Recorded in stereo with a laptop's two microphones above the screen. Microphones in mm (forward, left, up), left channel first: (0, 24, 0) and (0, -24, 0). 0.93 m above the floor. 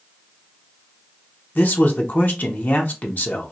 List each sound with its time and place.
1.6 s a man speaking: 45° left (ahead or behind), 0.7 m